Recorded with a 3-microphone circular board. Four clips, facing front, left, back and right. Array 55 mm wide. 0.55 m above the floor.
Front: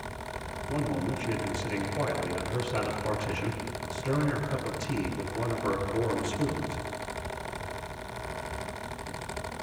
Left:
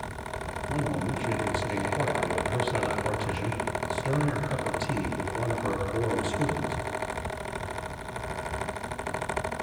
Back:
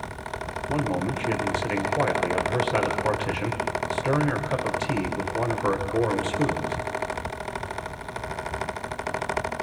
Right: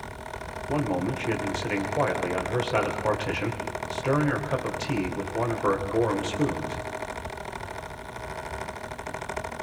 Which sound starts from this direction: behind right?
A man speaking, at 0.7 s.